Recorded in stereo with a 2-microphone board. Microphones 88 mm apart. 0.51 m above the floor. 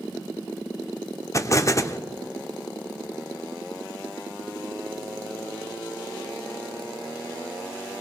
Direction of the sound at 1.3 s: 35° left (ahead or behind).